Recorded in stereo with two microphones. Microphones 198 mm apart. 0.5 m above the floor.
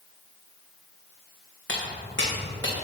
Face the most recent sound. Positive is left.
turn(degrees=75)  # may be behind; listen again after turning